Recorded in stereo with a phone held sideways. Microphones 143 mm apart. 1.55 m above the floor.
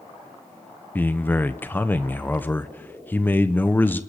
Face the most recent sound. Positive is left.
turn(degrees=15)  # may be behind; listen again after turning